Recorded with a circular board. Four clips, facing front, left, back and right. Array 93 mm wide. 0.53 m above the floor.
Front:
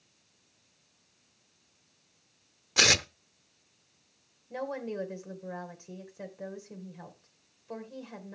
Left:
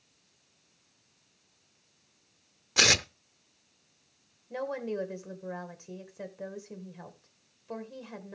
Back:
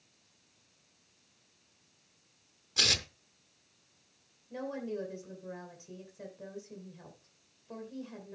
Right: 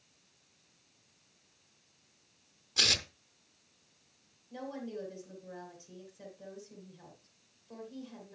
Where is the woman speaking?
65° left, 2.5 m.